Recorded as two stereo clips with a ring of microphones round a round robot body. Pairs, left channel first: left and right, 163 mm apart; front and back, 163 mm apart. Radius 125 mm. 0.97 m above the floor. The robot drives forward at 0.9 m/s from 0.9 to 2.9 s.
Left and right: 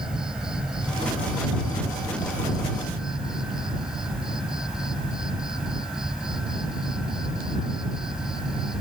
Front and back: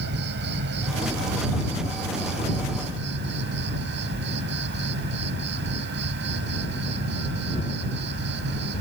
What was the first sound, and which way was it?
An insect, 175° right.